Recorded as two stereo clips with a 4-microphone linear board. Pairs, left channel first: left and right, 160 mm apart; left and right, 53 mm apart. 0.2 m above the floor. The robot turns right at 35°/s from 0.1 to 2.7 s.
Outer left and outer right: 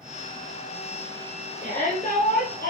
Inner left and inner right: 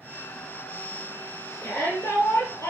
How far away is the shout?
About 4.5 m.